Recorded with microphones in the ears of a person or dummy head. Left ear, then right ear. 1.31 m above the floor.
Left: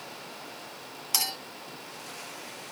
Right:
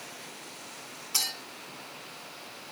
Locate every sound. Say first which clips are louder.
1.1 s a clink: left 1 dB; 70° left (ahead or behind), 2.5 m